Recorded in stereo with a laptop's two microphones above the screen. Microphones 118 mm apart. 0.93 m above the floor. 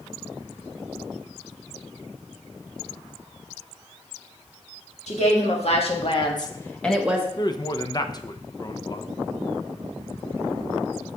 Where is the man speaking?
35° left (ahead or behind), 0.5 m.